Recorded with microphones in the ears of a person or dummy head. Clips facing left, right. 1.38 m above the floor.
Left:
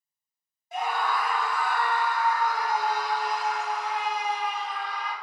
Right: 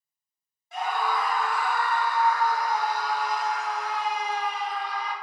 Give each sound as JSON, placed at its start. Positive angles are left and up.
{"t": 0.7, "sound": "a scream", "side_deg": 15, "distance_m": 0.8}